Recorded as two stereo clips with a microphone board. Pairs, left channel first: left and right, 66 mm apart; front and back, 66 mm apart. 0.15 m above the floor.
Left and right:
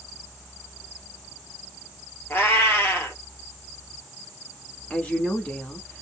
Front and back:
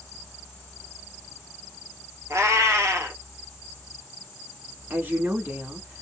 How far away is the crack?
I don't hear a crack.